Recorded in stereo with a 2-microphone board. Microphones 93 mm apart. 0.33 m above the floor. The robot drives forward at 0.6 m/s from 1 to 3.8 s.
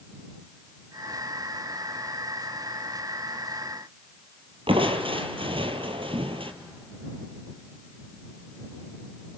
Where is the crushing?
70° right (ahead or behind), 1.3 m.